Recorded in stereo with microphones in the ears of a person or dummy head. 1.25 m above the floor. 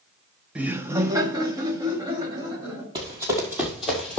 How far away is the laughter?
About 0.5 m.